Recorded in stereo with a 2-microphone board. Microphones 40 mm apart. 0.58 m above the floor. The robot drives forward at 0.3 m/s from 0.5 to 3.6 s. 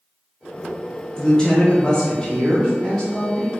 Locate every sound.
1.2 s a woman speaking: 15° left (ahead or behind), 0.9 m; by 3.5 s 10° left (ahead or behind), 1.2 m